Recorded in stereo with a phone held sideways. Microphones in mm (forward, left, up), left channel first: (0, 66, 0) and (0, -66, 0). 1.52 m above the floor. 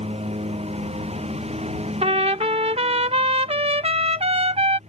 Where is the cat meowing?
No cat meowing in this recording.